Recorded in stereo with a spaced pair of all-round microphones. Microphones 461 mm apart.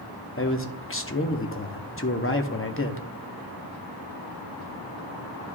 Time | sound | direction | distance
0.4 | a man speaking | 30° left (ahead or behind) | 0.8 m